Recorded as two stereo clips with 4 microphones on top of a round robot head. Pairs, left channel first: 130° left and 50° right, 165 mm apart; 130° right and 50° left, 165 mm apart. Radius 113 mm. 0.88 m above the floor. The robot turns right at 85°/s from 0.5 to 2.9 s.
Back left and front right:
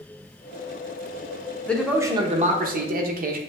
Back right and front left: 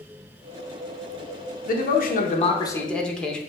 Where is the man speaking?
150° right, 0.9 m; by 3.4 s 45° right, 0.9 m.